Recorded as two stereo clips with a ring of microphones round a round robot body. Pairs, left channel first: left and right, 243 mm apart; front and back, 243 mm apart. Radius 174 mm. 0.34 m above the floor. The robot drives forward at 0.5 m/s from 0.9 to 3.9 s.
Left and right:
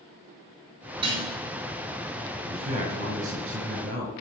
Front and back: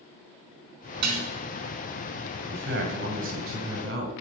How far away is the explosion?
No explosion in this recording.